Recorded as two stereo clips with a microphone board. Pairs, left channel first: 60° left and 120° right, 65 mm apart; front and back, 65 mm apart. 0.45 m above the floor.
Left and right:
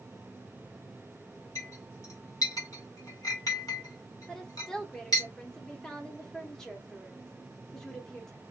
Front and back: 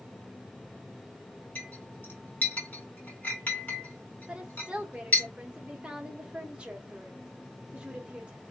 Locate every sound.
1.6 s a clink: 60° left, 1.9 m
4.3 s a woman speaking: 130° left, 0.9 m